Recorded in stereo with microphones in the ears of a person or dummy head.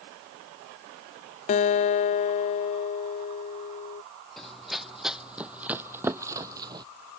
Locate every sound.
1.5 s a guitar: 35° left (ahead or behind)
4.4 s running footsteps: centre (ahead or behind); by 6.9 s 20° right (ahead or behind)